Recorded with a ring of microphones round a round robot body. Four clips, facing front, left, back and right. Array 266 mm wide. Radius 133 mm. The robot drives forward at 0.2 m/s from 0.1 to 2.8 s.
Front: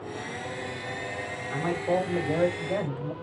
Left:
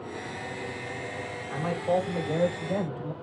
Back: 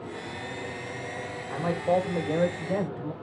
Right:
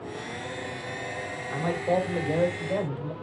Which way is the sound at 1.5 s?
145° right.